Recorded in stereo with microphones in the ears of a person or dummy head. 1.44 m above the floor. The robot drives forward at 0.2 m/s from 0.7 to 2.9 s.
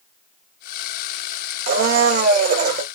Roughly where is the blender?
Right.